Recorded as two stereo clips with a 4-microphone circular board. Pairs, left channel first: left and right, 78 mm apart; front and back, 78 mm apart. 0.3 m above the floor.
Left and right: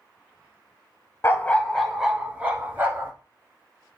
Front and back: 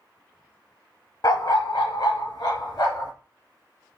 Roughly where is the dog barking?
Ahead left.